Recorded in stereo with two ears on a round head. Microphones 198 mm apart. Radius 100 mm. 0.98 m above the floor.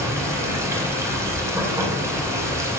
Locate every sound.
0.0 s running water: 15° right (ahead or behind), 3.5 m